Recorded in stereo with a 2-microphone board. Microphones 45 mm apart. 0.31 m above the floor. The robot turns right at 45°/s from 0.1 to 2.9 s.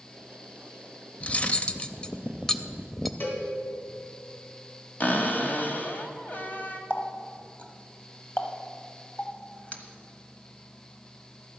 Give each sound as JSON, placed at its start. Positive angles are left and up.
{"t": 1.2, "sound": "cutlery clinking", "azimuth_deg": 100, "distance_m": 0.5}
{"t": 3.2, "sound": "a cowbell", "side_deg": 50, "distance_m": 2.0}
{"t": 5.0, "sound": "a cupboard door", "side_deg": 40, "distance_m": 1.2}
{"t": 6.9, "sound": "a running tap", "side_deg": 35, "distance_m": 1.1}